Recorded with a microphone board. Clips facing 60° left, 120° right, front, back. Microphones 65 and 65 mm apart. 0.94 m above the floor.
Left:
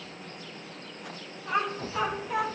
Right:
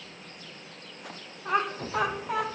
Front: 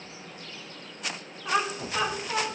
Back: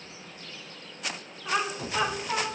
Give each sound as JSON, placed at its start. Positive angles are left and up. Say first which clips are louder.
{"t": 1.4, "sound": "laughter", "louder": "right 1 dB, front 2 dB", "azimuth_deg": -85, "distance_m": 2.0}